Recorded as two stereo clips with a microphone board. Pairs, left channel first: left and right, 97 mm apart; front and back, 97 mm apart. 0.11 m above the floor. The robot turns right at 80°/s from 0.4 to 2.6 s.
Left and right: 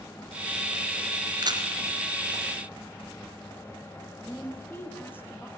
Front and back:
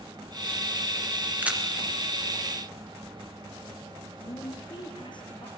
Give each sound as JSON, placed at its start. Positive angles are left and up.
{"t": 1.4, "sound": "a camera shutter", "azimuth_deg": -115, "distance_m": 2.5}
{"t": 4.2, "sound": "a woman speaking", "azimuth_deg": 25, "distance_m": 3.0}